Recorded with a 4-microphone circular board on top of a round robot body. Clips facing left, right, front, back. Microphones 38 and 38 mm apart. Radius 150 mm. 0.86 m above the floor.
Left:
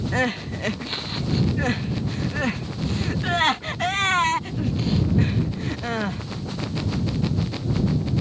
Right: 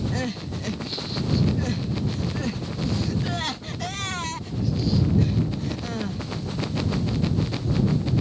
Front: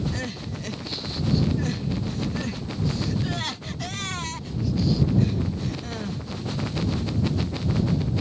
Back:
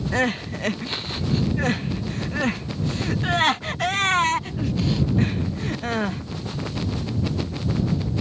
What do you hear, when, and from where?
0.1 s crying: 135° left